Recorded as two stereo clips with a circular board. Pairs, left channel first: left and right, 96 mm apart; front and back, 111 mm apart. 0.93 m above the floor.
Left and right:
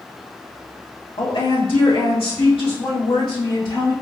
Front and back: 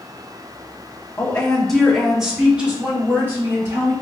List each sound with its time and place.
1.2 s a woman speaking: 75° left, 1.4 m; by 3.9 s 115° left, 2.5 m